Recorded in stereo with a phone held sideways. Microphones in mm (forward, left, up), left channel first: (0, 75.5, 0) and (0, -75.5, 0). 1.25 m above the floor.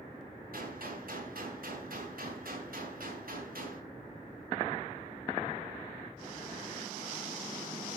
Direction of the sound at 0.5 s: 75° right (ahead or behind).